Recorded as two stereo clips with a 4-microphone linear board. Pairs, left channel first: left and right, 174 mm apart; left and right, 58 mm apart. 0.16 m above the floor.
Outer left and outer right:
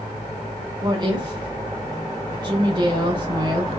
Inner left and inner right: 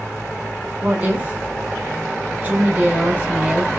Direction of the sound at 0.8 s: 25° right (ahead or behind).